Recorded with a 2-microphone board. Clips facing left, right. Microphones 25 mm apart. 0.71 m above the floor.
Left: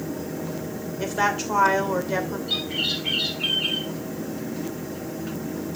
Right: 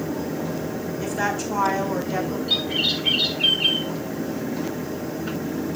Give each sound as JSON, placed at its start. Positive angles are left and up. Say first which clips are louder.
{"t": 1.0, "sound": "a woman speaking", "louder": "left 2 dB", "side_deg": 30, "distance_m": 2.5}
{"t": 2.5, "sound": "a bird", "louder": "right 4 dB", "side_deg": -15, "distance_m": 4.0}